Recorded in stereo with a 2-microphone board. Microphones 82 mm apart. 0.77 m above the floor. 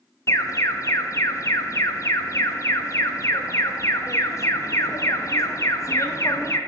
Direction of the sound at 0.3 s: 35° left (ahead or behind).